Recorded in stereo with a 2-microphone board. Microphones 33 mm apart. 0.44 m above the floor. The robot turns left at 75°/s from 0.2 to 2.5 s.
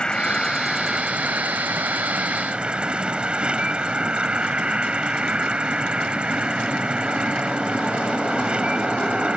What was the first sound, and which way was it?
An insect, 25° left.